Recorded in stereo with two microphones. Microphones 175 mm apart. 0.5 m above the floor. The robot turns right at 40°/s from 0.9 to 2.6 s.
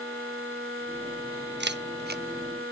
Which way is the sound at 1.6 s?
80° right.